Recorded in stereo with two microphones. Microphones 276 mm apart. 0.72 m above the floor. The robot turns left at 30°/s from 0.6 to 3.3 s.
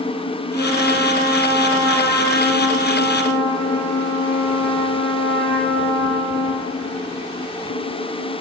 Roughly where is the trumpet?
Behind right.